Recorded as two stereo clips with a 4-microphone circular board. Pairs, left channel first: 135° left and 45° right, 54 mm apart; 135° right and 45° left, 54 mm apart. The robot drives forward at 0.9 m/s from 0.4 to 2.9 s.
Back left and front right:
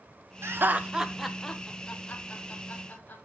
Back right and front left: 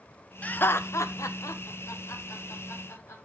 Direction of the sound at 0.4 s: 75° right.